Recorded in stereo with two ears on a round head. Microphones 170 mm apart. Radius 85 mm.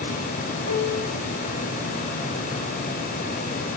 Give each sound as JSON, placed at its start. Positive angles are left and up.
{"t": 0.7, "sound": "a piano", "side_deg": 80, "distance_m": 6.5}